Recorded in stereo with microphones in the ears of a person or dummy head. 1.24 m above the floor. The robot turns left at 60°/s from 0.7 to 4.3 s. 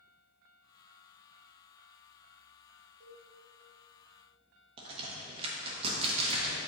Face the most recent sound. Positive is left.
turn(degrees=-35)  # may be behind; listen again after turning